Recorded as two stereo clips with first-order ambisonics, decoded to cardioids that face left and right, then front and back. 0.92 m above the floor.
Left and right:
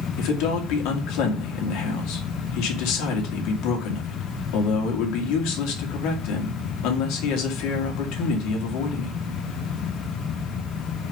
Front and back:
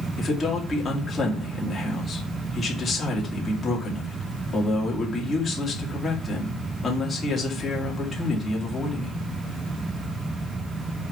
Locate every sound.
0.2 s a man speaking: 75° left, 2 m